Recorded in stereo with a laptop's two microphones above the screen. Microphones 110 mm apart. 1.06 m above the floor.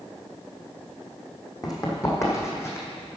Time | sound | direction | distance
1.6 | running footsteps | 35° left (ahead or behind) | 1.9 m